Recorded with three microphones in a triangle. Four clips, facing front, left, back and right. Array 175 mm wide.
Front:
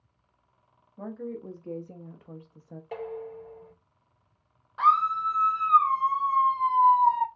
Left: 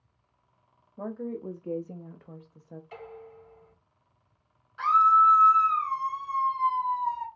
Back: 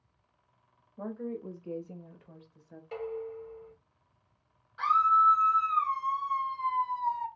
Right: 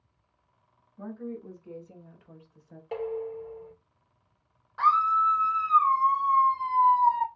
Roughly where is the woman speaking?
Left.